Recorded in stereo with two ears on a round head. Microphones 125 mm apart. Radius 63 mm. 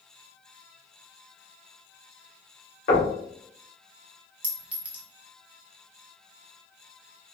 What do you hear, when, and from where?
2.9 s knocking: 75° left (ahead or behind), 1.7 m
4.4 s a clink: 10° right (ahead or behind), 0.8 m